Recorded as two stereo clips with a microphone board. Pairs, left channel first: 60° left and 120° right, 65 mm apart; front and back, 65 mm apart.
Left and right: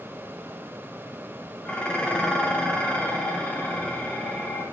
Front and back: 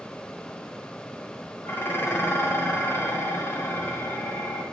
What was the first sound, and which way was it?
Dishes clattering, straight ahead.